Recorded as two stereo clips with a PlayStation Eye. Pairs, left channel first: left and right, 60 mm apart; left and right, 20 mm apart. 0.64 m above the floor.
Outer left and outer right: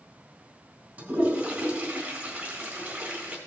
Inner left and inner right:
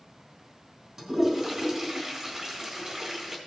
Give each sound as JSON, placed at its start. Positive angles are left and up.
{"t": 1.0, "sound": "a toilet flushing", "side_deg": -35, "distance_m": 3.5}